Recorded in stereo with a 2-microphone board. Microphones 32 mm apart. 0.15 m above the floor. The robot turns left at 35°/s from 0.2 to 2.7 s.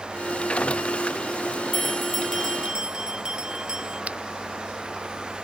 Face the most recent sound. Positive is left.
turn(degrees=-50)  # may be behind; listen again after turning